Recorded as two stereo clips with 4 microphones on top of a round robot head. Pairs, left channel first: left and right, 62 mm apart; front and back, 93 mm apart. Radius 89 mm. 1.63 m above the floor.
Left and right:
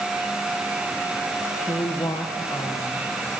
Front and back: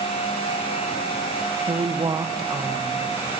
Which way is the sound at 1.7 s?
145° left.